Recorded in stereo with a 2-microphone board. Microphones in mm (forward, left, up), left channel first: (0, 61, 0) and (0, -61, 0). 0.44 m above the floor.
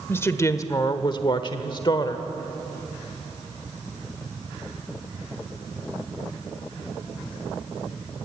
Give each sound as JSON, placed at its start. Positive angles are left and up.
{"t": 0.1, "sound": "a woman speaking", "side_deg": 20, "distance_m": 1.3}